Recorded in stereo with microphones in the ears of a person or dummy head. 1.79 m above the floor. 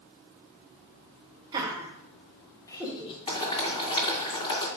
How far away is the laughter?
About 1.6 m.